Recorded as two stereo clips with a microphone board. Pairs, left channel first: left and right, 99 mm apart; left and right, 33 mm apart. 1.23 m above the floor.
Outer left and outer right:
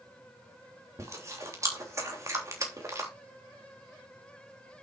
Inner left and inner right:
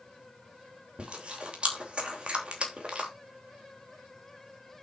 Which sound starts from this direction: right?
Chewing, at 1.0 s.